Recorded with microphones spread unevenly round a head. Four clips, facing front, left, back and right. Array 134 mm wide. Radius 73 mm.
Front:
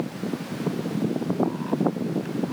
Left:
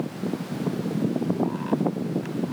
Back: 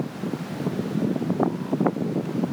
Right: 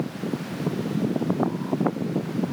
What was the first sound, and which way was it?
Only background noise.